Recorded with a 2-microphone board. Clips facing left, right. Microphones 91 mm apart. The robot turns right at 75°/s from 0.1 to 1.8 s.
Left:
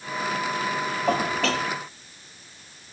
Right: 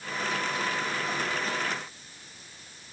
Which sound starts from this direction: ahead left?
Dishes clattering, at 1.1 s.